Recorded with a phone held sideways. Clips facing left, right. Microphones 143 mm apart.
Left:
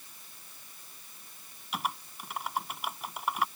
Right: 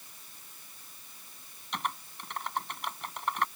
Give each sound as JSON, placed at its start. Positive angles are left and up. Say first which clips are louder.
{"t": 1.7, "sound": "typing on a keyboard", "louder": "left 1 dB", "side_deg": 5}